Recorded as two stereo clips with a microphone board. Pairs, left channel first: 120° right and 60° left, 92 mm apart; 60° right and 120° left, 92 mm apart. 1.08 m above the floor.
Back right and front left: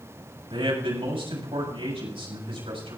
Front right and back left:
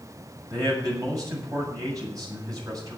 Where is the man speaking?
70° left, 7 m.